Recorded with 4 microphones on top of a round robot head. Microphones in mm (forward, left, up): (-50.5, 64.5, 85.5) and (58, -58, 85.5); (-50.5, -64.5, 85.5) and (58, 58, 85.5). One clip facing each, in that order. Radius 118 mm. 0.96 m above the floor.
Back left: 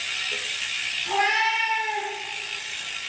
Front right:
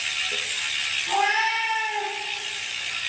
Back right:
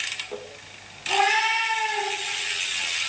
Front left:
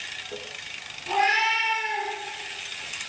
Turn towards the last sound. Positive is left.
turn(degrees=125)